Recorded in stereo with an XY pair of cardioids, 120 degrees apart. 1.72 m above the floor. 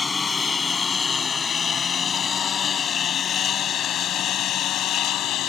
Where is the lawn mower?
25° left; by 5.5 s 70° left.